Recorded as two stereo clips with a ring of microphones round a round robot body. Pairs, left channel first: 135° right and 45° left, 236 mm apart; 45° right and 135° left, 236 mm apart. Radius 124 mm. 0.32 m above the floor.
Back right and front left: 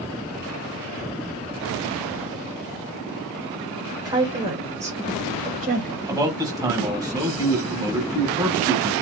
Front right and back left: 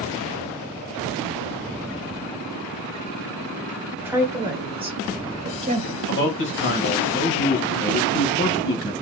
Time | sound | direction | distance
4.0 | a woman speaking | 75° left | 1.3 m
6.1 | a man speaking | 25° right | 1.3 m